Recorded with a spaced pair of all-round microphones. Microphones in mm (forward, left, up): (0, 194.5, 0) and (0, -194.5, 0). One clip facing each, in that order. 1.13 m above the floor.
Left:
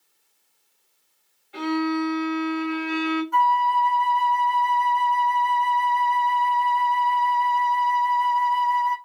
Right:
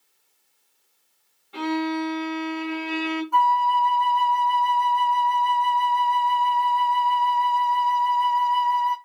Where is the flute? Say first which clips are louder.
Even; 30° left (ahead or behind), 1.1 m.